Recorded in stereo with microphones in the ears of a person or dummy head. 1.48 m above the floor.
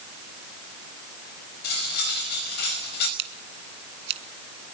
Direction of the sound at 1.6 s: 65° left (ahead or behind).